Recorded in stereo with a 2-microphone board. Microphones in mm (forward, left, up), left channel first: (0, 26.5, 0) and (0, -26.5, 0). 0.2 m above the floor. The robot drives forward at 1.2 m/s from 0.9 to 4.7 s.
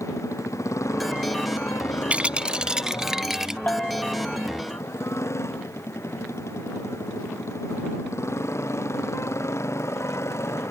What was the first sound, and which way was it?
A motorcycle, 70° left (ahead or behind).